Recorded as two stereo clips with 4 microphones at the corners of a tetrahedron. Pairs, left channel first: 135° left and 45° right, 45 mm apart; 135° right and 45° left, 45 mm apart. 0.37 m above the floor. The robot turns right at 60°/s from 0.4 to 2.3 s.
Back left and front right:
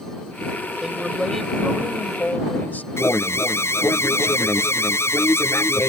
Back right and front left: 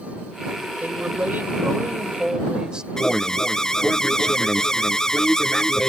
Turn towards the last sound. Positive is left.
turn(degrees=150)